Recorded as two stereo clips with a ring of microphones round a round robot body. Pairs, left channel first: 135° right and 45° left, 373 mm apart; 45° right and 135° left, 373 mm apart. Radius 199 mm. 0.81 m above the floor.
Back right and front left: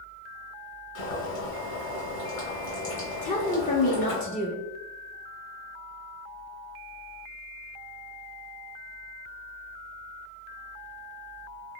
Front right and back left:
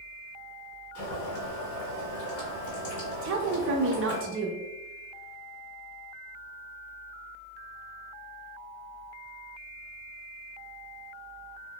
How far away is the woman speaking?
About 0.6 m.